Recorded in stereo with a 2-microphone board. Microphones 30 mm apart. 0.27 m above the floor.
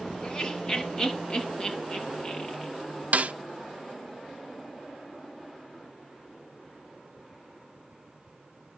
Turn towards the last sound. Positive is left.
turn(degrees=-60)  # may be behind; listen again after turning